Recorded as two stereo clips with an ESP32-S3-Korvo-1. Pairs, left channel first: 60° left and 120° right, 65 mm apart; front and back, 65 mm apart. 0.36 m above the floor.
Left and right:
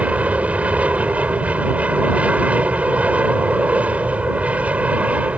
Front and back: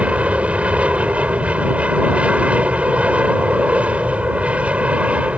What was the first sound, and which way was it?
An aircraft, 145° right.